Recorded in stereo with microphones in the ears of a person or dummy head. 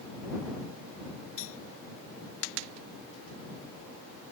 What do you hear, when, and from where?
1.4 s cutlery clinking: 75° left (ahead or behind)